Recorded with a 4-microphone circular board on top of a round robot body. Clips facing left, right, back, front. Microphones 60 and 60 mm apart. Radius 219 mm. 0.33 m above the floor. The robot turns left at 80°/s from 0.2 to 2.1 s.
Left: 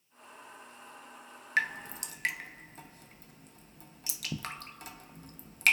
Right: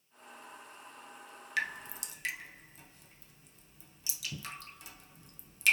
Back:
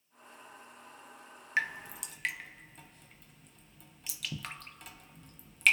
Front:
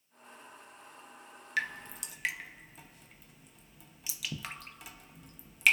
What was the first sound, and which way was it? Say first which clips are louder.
Dripping: left 5 dB, back 2 dB; 130° left.